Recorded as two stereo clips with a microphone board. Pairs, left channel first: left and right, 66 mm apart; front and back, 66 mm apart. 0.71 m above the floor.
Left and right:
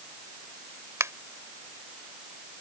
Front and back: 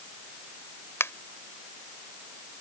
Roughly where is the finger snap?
Ahead right.